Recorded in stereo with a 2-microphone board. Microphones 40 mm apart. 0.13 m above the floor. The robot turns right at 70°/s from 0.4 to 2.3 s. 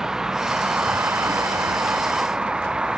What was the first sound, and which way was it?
A vehicle, 15° right (ahead or behind).